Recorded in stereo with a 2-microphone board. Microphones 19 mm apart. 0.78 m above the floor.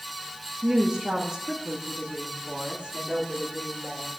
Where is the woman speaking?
35° right (ahead or behind), 1.0 m; by 4.1 s 70° right (ahead or behind), 3 m.